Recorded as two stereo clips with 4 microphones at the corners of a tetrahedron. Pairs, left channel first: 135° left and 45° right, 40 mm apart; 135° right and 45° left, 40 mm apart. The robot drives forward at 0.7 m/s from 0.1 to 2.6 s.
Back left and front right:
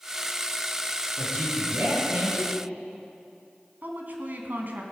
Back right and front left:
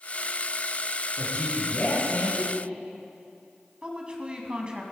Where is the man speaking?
80° right, 6.5 m; by 2.5 s 85° right, 6.5 m.